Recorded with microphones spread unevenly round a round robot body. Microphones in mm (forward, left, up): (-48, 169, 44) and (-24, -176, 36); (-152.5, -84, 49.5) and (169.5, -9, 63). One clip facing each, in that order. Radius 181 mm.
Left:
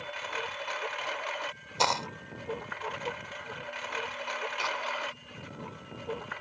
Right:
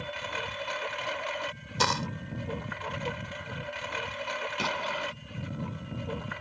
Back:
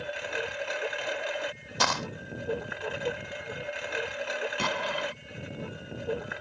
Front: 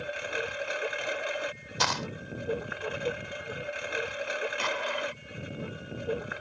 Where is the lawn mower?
75° right.